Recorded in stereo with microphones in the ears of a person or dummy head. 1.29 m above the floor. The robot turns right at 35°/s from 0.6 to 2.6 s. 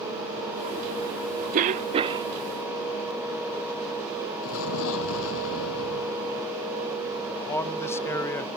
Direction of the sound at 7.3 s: 20° left (ahead or behind).